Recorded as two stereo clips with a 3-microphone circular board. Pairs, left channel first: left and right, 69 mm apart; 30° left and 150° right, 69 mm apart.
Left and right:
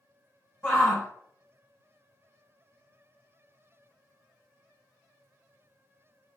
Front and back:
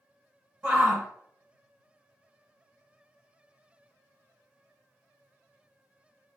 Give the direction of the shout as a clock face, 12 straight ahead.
7 o'clock.